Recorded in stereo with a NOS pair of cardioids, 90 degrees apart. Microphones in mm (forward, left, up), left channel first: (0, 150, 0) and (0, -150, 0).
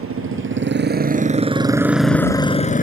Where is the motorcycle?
50° right; by 2.8 s 30° left.